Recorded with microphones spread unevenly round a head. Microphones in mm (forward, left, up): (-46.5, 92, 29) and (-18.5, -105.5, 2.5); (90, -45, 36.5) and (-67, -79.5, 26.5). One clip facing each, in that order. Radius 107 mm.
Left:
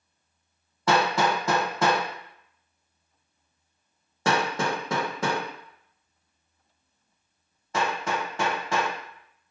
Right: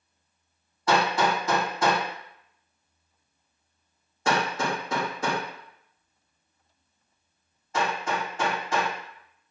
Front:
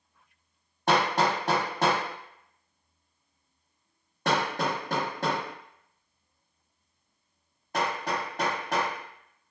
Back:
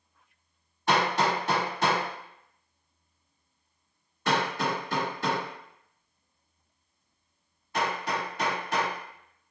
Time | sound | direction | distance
0.9 | hammering | 65° left | 0.9 m